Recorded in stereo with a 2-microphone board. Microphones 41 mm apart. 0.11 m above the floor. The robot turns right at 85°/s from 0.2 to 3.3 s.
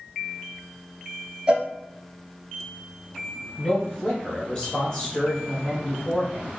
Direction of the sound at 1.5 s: 25° right (ahead or behind).